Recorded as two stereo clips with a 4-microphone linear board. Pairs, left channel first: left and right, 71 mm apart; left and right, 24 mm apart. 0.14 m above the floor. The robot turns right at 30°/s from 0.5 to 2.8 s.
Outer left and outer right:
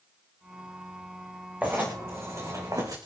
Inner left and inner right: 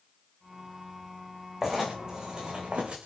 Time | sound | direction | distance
1.6 | writing | 160° right | 5.5 m